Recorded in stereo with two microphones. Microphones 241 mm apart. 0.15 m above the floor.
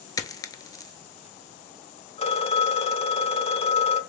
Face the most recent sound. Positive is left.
turn(degrees=25)  # may be behind; listen again after turning